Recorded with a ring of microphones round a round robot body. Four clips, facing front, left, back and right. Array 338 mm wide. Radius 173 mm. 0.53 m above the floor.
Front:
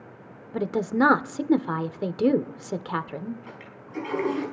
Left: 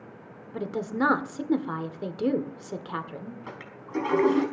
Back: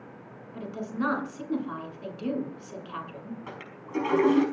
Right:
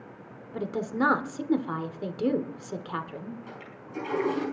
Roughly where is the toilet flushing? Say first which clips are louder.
Left 4 dB, back 3 dB; behind left.